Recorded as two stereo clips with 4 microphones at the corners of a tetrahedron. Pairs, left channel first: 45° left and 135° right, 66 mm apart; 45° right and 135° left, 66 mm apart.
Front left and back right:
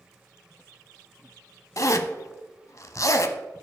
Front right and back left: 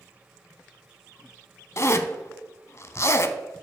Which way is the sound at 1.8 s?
5° left.